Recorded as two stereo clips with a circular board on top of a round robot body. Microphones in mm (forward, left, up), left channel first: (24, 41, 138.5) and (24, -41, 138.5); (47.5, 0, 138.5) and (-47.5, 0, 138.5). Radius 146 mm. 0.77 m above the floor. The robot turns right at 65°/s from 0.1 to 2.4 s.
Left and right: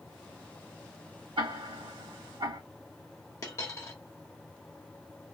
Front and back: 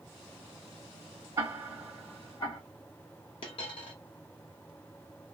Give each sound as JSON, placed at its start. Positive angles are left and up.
{"t": 1.4, "sound": "ticking", "azimuth_deg": -120, "distance_m": 1.7}
{"t": 3.4, "sound": "a dropped coin", "azimuth_deg": 35, "distance_m": 0.9}